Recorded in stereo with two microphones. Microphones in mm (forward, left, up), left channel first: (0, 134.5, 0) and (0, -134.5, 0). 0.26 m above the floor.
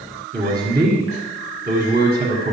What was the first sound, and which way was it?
A man speaking, 35° right (ahead or behind).